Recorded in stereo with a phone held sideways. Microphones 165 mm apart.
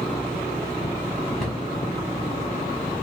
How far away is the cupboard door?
About 1.7 m.